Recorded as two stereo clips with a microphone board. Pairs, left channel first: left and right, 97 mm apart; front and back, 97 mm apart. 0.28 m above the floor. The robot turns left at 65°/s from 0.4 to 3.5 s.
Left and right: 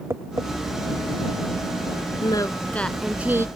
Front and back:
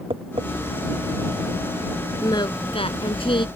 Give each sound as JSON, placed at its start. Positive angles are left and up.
{"t": 0.1, "sound": "tapping", "azimuth_deg": -155}
{"t": 2.2, "sound": "singing", "azimuth_deg": 50}